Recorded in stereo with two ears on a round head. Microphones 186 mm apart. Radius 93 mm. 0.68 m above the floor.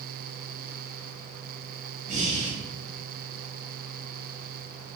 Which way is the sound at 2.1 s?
35° right (ahead or behind).